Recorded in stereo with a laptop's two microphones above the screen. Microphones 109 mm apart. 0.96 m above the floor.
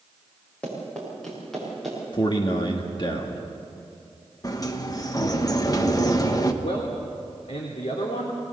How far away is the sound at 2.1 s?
About 1.5 m.